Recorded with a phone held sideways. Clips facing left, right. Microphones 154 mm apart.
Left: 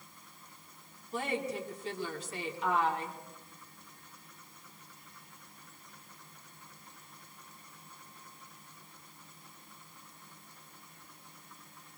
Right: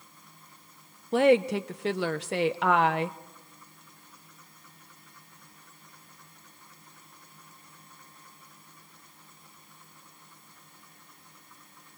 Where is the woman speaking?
65° right (ahead or behind), 0.9 m.